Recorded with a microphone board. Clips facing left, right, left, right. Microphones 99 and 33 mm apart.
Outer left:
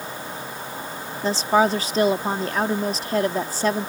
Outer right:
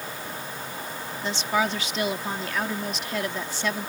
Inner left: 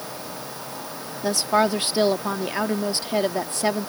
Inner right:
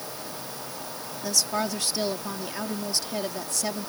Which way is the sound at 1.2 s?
35° left (ahead or behind).